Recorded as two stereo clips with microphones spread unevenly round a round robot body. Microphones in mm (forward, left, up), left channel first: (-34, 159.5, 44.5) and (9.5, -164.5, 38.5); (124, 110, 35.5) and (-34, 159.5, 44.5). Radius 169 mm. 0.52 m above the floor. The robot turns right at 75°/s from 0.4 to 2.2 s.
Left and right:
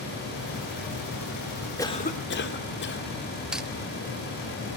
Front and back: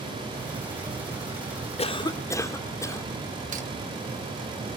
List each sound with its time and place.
1.8 s a cough: 20° left, 1.9 m; by 3.1 s 50° left, 1.9 m
3.5 s cutlery clinking: 170° right, 0.7 m